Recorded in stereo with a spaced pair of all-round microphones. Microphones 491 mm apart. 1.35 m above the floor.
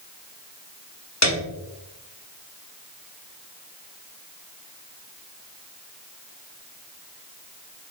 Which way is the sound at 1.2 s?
35° left (ahead or behind).